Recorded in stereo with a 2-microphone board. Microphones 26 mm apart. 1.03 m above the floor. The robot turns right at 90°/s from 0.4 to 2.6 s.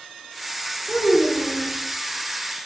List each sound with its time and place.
0.9 s a child speaking: 25° left, 3.5 m; by 1.7 s 105° left, 3.5 m